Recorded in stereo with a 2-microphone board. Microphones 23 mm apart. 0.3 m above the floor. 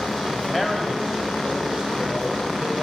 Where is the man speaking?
Centre (ahead or behind), 1.1 m; by 2.9 s 40° right (ahead or behind), 2.5 m.